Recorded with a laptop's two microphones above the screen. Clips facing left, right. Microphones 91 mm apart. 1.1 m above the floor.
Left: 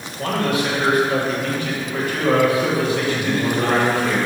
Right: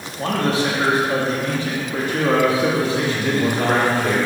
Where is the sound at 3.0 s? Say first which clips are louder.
Right 1 dB; 55° right (ahead or behind), 1.9 m.